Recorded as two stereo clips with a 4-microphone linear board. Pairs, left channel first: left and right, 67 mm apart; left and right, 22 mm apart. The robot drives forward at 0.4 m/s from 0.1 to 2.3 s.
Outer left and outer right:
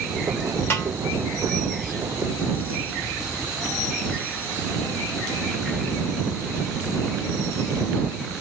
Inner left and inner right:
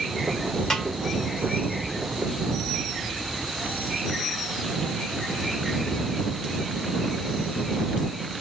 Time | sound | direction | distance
0.7 | a snare drum | 35° left (ahead or behind) | 1.4 m